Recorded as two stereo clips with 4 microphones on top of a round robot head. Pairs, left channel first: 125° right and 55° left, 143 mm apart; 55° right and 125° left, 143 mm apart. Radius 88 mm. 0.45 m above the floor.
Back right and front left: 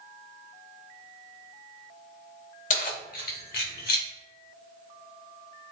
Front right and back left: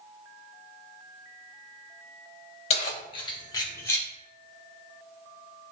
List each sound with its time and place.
2.7 s keys jangling: 95° right, 1.5 m; by 4.1 s 130° right, 2.5 m